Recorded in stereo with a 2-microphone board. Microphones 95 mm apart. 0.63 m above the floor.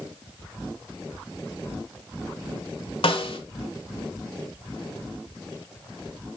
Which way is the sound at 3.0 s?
65° left (ahead or behind).